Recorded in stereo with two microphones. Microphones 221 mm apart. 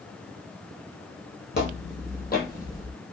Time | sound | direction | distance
1.5 | footsteps | 50° left (ahead or behind) | 1.3 m